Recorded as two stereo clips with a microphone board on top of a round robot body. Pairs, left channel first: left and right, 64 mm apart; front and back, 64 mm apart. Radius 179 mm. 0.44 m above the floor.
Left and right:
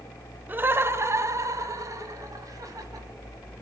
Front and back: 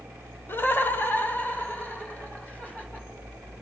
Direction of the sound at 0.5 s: 40° right.